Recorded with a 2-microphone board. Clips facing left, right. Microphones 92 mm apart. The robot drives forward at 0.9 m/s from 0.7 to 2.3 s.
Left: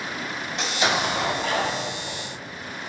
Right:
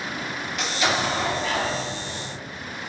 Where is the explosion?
25° left (ahead or behind), 1.2 m; by 2.3 s 35° left (ahead or behind), 1.0 m.